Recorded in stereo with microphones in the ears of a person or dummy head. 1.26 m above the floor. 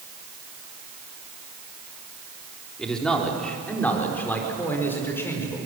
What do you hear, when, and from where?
2.8 s a man speaking: 5° left (ahead or behind), 3 m; by 5.7 s 15° left (ahead or behind), 4.5 m